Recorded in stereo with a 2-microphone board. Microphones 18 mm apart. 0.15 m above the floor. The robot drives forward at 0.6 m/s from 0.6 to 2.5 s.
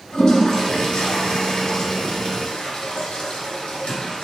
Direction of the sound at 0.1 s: 45° left (ahead or behind).